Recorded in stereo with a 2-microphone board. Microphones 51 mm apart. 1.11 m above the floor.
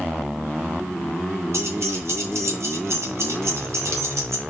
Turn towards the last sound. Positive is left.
turn(degrees=-65)  # may be behind; listen again after turning